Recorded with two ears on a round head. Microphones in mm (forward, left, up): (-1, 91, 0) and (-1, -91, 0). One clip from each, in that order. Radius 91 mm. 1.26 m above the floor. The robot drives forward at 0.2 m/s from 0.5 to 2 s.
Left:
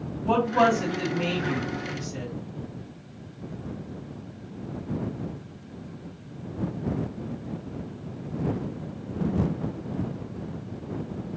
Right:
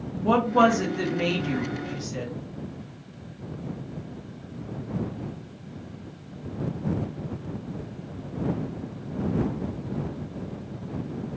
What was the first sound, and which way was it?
A woman speaking, 55° right (ahead or behind).